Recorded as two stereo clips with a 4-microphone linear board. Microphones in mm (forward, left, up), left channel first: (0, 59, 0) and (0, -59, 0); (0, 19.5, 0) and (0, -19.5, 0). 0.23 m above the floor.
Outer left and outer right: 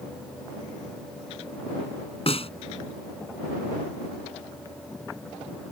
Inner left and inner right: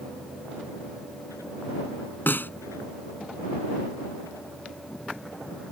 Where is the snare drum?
55° left (ahead or behind).